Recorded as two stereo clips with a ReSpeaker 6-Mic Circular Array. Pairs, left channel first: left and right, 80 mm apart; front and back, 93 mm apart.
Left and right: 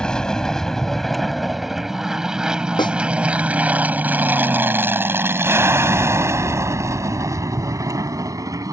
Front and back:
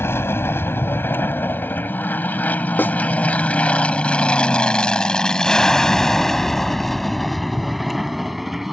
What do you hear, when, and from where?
0.0 s an aircraft: 20° left; by 8.7 s 95° right
2.8 s a snare drum: 70° left